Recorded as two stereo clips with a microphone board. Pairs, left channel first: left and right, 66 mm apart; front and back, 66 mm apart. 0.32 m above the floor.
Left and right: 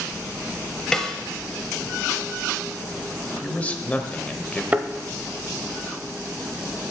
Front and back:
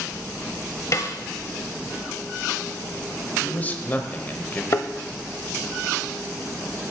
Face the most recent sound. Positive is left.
turn(degrees=-30)